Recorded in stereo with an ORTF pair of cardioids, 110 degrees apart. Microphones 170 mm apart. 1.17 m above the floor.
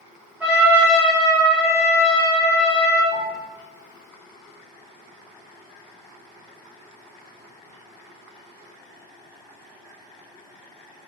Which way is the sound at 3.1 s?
45° left.